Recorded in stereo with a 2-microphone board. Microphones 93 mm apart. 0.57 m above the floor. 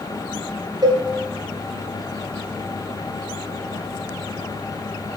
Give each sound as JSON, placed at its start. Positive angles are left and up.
{"t": 0.8, "sound": "a cowbell", "side_deg": -50, "distance_m": 2.0}